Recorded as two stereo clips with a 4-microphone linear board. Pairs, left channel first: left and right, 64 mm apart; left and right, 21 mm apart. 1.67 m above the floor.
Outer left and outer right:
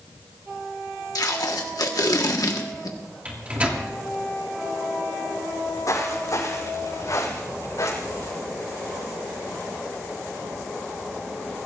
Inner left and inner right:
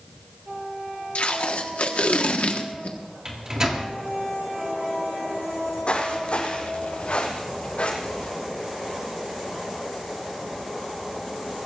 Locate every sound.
1.1 s tape being pulled: 70° left (ahead or behind), 1.4 m
3.2 s a microwave: 25° right (ahead or behind), 3 m
5.5 s footsteps: 55° left (ahead or behind), 4 m; by 8.3 s 65° left (ahead or behind), 7.5 m